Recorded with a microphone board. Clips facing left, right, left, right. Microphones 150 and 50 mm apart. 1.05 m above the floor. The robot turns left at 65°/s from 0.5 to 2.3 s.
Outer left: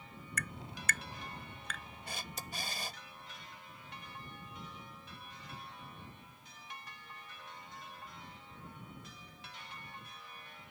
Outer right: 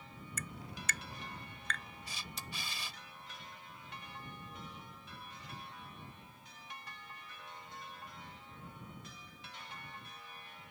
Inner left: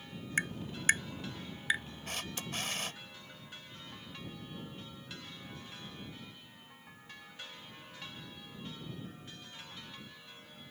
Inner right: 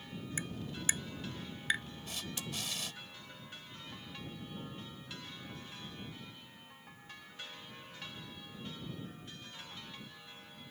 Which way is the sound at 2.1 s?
70° left (ahead or behind).